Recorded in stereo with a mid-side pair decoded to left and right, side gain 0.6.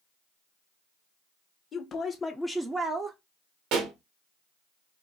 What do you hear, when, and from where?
1.7 s a woman speaking: 45° left, 1.0 m; by 3.2 s 50° right, 0.8 m
3.7 s a pop: 70° right, 1.3 m